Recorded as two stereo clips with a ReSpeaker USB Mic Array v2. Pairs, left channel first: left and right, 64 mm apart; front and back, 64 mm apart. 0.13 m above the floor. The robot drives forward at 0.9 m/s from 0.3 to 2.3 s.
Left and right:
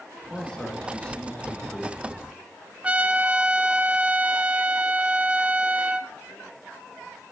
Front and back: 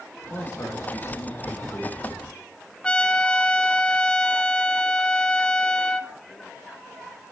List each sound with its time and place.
0.2 s a man speaking: 15° left, 3 m; by 2.3 s 50° left, 1.8 m
2.8 s a trumpet: 50° right, 0.8 m